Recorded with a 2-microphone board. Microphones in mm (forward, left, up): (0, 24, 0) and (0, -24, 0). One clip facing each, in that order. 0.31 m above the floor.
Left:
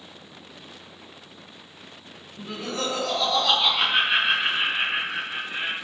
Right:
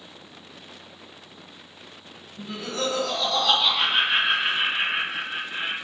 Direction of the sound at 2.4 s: 30° left (ahead or behind).